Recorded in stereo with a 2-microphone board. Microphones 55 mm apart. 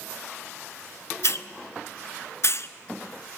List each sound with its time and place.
1.2 s a hiss: 55° left (ahead or behind), 0.5 m